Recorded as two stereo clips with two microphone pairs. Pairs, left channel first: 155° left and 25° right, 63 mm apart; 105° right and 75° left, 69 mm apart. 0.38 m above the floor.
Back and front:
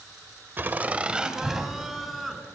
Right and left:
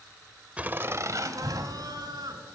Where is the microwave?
No microwave in this recording.